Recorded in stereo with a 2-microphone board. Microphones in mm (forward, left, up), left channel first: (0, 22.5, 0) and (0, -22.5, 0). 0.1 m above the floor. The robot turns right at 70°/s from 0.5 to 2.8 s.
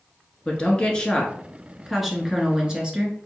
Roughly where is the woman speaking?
Left.